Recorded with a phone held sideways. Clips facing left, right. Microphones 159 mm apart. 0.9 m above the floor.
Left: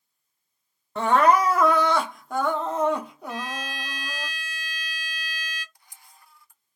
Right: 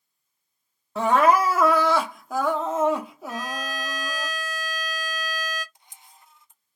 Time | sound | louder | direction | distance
0.9 | crying | even | 5° right (ahead or behind) | 0.6 m
3.3 | a violin | right 1 dB | 45° right (ahead or behind) | 0.8 m
5.8 | a camera shutter | right 2 dB | 20° right (ahead or behind) | 0.5 m